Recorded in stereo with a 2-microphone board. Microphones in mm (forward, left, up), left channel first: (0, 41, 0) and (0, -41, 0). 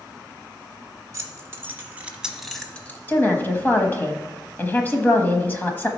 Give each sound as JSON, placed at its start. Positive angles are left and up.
{"t": 1.1, "sound": "keys jangling", "side_deg": -35, "distance_m": 1.7}
{"t": 3.1, "sound": "a woman speaking", "side_deg": 25, "distance_m": 1.2}